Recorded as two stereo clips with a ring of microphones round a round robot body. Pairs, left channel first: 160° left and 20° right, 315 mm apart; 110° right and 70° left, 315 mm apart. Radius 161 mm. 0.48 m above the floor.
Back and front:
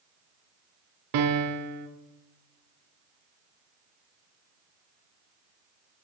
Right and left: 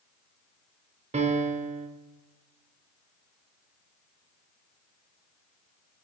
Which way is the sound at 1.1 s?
5° right.